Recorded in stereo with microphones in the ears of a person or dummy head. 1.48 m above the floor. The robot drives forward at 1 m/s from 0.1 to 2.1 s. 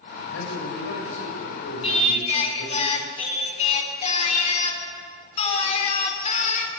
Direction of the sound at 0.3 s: 80° left.